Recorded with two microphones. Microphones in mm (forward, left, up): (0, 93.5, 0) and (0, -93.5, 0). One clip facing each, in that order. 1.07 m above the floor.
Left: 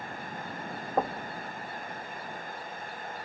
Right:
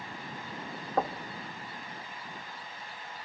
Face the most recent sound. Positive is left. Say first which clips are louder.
# left 1 dB
turn(degrees=10)  # may be behind; listen again after turning